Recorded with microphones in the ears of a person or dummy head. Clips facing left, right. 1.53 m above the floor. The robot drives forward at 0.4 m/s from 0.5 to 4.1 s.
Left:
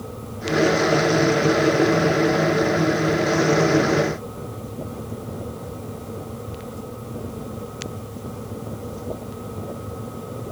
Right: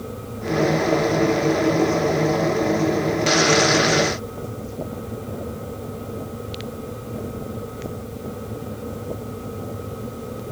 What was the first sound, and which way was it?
Only background noise.